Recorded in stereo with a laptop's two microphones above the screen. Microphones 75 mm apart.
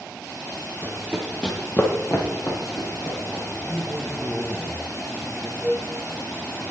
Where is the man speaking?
5° right (ahead or behind), 1.1 m.